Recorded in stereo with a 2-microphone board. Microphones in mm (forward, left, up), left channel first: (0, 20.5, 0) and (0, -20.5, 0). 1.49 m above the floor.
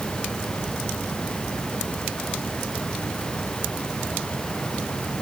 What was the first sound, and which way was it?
Only background noise.